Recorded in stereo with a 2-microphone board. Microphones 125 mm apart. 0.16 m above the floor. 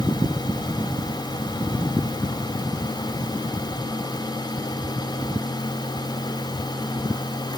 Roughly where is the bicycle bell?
No bicycle bell in this recording.